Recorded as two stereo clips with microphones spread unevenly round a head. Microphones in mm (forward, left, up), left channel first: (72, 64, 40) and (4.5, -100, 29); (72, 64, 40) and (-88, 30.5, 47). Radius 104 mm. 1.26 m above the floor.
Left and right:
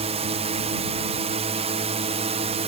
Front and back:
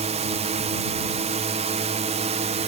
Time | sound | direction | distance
0.0 | a drone | 140° right | ?